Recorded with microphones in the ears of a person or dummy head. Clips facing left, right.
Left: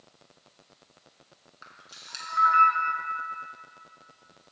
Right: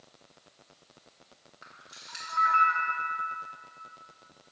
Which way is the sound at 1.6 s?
50° left (ahead or behind).